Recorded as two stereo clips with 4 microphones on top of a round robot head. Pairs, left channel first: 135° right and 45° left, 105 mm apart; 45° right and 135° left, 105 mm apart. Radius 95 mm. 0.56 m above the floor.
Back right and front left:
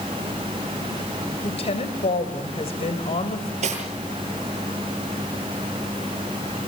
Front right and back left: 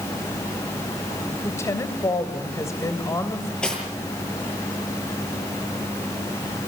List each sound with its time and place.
1.4 s a woman speaking: 110° right, 3.5 m
3.6 s cutlery clinking: 35° left, 8.5 m